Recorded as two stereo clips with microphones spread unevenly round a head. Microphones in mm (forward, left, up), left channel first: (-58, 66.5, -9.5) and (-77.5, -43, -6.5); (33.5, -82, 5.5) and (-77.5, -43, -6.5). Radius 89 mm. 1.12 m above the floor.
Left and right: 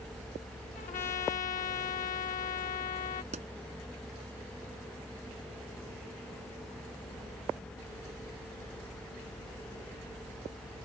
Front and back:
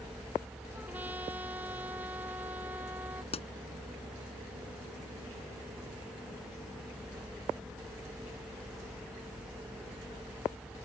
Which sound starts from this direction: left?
A trumpet, at 0.7 s.